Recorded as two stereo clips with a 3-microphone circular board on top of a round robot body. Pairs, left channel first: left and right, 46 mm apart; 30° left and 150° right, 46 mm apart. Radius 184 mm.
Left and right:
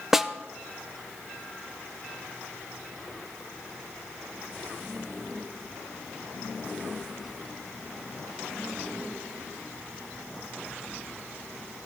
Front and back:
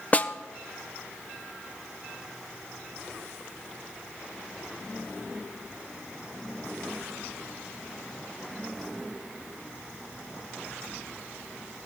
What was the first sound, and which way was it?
A snare drum, 10° right.